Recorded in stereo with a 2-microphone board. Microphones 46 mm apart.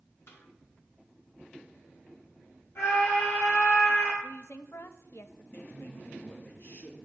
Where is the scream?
75° left (ahead or behind), 5 m.